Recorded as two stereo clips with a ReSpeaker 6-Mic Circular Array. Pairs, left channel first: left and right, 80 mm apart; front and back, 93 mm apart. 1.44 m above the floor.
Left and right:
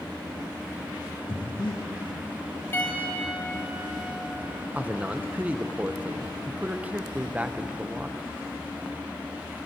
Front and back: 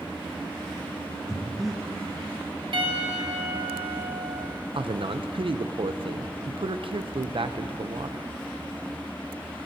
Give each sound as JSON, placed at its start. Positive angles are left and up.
{"t": 1.3, "sound": "breathing", "azimuth_deg": 90, "distance_m": 2.0}
{"t": 2.7, "sound": "a piano", "azimuth_deg": 155, "distance_m": 1.5}
{"t": 4.7, "sound": "a man speaking", "azimuth_deg": -160, "distance_m": 0.7}